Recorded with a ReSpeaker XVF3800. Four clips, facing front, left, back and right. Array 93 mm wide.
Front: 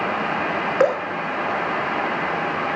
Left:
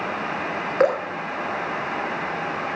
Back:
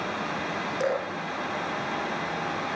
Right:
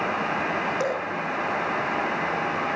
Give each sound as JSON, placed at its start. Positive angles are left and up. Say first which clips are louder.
{"t": 0.8, "sound": "dripping", "louder": "left 7 dB, front 9 dB", "azimuth_deg": 35, "distance_m": 3.0}